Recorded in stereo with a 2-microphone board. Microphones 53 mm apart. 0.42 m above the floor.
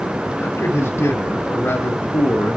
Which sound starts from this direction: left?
A man speaking, at 0.4 s.